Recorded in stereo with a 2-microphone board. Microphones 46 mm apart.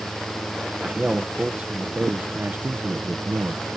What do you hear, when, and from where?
0.8 s a man speaking: 20° right (ahead or behind); by 3.7 s 75° right (ahead or behind)